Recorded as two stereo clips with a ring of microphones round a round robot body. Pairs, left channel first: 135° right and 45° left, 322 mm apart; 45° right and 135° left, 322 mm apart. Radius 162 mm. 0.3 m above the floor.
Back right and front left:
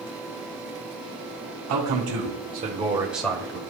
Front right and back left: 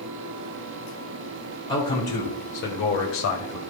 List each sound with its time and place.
1.7 s a man speaking: 25° left, 2 m; by 3.6 s 65° right, 1.7 m